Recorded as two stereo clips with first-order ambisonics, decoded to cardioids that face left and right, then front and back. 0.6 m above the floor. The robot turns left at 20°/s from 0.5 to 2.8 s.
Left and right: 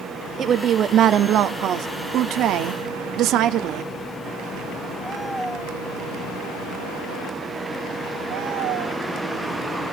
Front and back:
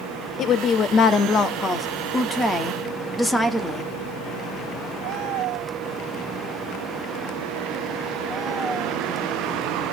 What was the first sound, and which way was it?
A woman speaking, 35° right.